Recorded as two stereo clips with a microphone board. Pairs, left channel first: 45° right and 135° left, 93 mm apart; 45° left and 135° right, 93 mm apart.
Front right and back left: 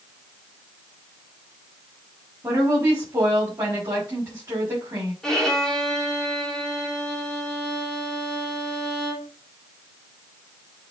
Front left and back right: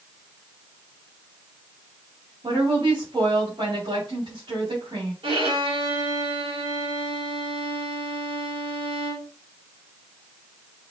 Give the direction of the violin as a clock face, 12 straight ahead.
4 o'clock.